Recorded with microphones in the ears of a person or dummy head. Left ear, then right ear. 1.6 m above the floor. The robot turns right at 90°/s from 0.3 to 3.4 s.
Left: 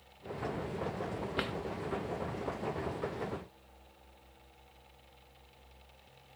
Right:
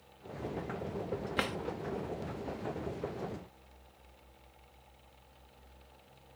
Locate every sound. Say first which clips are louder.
1.4 s a drawer: right 2 dB; 10° right (ahead or behind); by 1.6 s 25° right (ahead or behind)